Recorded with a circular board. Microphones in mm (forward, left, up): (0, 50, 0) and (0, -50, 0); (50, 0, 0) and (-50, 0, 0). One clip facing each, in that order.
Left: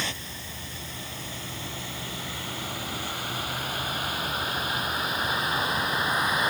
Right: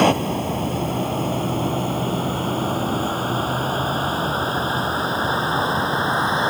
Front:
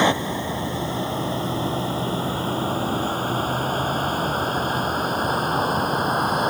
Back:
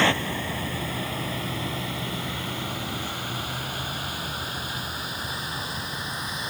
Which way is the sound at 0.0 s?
70° right.